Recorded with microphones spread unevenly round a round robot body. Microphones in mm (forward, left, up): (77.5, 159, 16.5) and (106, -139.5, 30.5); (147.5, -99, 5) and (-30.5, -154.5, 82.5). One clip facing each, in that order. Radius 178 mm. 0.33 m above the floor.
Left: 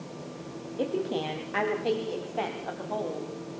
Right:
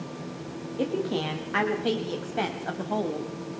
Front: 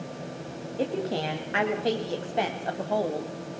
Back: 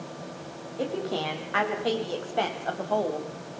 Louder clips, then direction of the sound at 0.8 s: Right 2 dB, front 1 dB; 10° right.